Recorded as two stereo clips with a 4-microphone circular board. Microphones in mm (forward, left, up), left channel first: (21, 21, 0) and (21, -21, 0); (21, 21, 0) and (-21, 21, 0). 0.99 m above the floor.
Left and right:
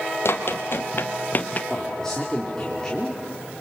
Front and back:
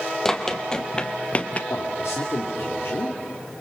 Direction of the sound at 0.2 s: 80° left.